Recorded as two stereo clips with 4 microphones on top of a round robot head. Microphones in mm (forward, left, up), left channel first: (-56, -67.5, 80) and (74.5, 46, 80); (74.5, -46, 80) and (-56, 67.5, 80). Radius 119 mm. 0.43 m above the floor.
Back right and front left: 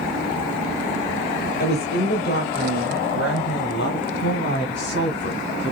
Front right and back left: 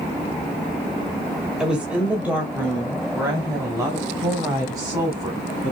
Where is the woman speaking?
135° right, 1.8 m; by 5.7 s 150° right, 4.5 m.